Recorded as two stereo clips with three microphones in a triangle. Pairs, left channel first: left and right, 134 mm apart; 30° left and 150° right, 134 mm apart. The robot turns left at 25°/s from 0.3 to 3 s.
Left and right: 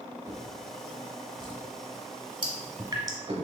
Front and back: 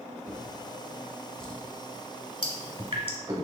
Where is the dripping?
120° right, 0.8 m; by 3.2 s 135° right, 0.8 m.